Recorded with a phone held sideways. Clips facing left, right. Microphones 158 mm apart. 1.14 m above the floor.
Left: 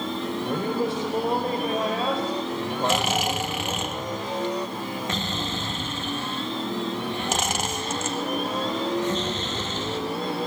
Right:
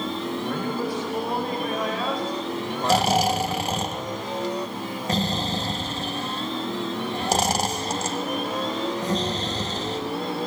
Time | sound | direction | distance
0.5 | a man speaking | 25° left (ahead or behind) | 4.5 m
2.8 | snoring | 35° right (ahead or behind) | 2 m